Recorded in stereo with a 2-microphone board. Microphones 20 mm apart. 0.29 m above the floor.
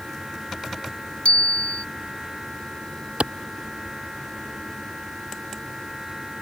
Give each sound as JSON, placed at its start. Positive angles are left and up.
{"t": 1.2, "sound": "a bicycle bell", "side_deg": 65}
{"t": 3.2, "sound": "a clap", "side_deg": -70}